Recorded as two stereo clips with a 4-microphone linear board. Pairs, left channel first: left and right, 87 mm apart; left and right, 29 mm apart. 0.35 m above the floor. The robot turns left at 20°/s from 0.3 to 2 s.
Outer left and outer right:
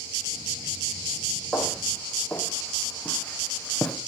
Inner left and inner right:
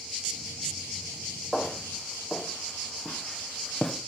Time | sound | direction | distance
1.5 | footsteps | centre (ahead or behind) | 7 m